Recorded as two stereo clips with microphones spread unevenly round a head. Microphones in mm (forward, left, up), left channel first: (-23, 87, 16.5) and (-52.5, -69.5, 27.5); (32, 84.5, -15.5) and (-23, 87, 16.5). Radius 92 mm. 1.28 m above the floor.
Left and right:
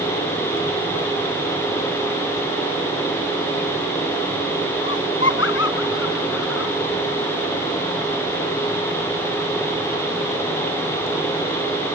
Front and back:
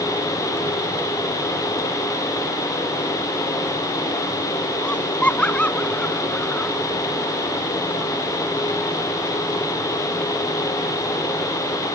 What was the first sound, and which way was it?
Laughter, 65° left.